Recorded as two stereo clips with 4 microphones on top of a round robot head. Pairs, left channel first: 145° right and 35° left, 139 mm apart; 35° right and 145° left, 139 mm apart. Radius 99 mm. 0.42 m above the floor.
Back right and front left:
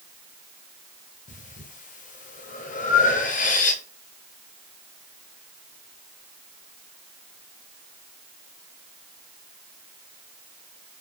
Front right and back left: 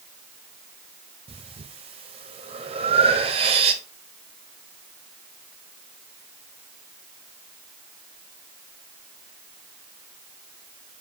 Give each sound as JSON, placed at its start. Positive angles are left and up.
{"t": 1.3, "sound": "breathing", "azimuth_deg": -170, "distance_m": 0.9}